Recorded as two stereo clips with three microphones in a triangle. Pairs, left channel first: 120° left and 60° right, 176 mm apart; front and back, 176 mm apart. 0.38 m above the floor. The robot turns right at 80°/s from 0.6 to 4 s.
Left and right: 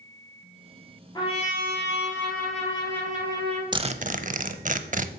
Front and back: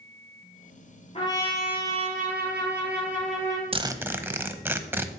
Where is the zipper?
125° right, 0.6 m; by 5.1 s 105° right, 0.6 m.